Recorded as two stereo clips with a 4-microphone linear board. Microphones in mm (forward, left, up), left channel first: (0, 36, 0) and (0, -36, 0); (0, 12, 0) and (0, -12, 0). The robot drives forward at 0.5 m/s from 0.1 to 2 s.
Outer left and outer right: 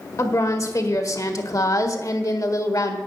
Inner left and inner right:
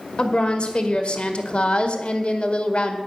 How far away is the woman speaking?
About 1.7 m.